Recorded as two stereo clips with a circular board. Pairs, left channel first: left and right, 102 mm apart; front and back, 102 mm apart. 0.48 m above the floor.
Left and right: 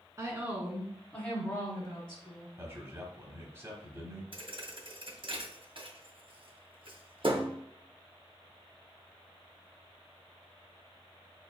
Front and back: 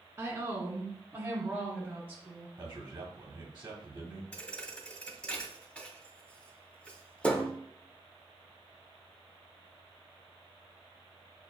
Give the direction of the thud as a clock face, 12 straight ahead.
3 o'clock.